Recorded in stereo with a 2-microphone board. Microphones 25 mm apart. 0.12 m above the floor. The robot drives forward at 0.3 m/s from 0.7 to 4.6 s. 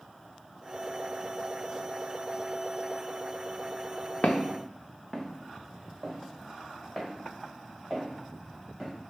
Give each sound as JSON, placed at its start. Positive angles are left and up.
{"t": 4.2, "sound": "footsteps", "side_deg": 60, "distance_m": 0.6}